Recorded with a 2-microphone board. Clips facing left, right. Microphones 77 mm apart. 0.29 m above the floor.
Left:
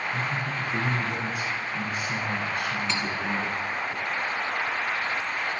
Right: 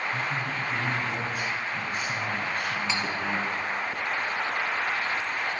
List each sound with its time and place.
0.1 s a man speaking: 45° right (ahead or behind), 2 m
2.9 s cutlery clinking: 10° right (ahead or behind), 1.4 m